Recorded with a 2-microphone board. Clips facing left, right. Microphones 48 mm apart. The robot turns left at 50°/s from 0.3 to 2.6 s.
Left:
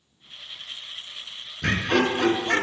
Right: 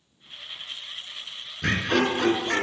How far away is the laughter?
About 1.3 m.